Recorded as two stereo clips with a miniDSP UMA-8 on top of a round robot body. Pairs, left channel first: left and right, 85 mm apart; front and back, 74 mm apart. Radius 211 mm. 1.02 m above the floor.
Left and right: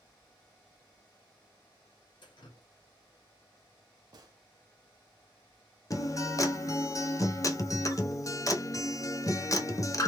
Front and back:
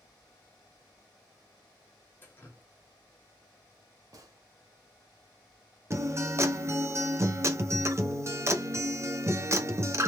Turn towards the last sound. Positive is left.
turn(degrees=135)